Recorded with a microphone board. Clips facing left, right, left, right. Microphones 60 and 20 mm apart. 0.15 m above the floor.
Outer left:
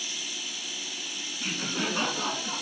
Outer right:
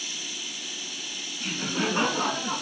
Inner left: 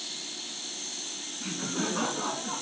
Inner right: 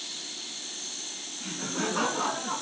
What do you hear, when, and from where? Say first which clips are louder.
1.4 s laughter: outer right 3 dB, even; 15° left (ahead or behind), 1.2 m; by 2.6 s 45° right (ahead or behind), 2 m